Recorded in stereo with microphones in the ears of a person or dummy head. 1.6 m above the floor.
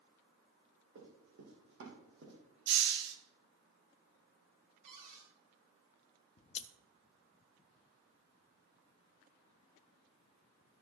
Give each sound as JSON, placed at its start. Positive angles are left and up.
{"t": 0.9, "sound": "running footsteps", "side_deg": -60, "distance_m": 4.0}
{"t": 2.7, "sound": "a hiss", "side_deg": -60, "distance_m": 1.5}
{"t": 4.8, "sound": "a cupboard door", "side_deg": -35, "distance_m": 4.0}
{"t": 6.4, "sound": "scissors", "side_deg": 40, "distance_m": 0.5}